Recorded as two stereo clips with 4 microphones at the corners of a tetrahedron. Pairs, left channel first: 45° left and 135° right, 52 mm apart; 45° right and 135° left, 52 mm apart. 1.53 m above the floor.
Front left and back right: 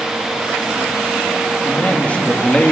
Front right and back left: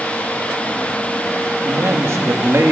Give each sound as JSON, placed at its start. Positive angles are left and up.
{"t": 1.6, "sound": "a man speaking", "azimuth_deg": 105, "distance_m": 2.5}